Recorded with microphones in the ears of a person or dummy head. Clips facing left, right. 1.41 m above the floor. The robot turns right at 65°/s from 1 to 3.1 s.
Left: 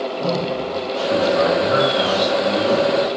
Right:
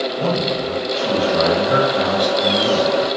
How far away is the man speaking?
About 0.9 m.